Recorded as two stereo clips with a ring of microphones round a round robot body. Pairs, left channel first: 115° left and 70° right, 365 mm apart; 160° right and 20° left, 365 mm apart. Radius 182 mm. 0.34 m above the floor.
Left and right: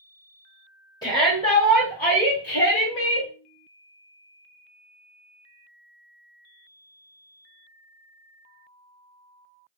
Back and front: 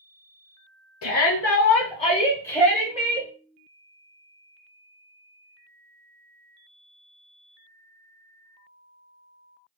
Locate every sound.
1.0 s a shout: 175° right, 1.4 m; by 3.3 s 95° left, 1.3 m